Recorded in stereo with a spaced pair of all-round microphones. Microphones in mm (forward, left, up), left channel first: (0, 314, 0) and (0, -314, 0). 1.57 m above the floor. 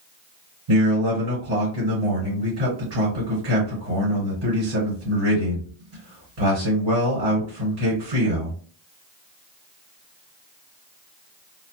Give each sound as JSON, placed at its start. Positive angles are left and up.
{"t": 0.7, "sound": "a man speaking", "side_deg": -85, "distance_m": 1.9}